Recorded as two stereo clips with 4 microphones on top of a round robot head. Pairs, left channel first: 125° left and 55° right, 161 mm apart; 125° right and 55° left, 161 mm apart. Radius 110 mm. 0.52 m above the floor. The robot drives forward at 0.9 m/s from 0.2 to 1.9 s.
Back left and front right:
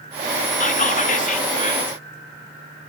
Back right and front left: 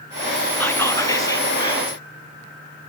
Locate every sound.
0.6 s whispering: 155° left, 1.1 m; by 2.0 s 170° left, 2 m